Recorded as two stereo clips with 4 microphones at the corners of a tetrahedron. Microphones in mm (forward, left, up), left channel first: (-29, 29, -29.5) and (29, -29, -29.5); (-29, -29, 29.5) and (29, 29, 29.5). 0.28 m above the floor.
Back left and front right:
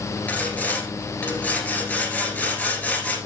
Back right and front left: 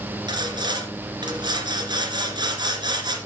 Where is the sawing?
65° left, 2.0 m.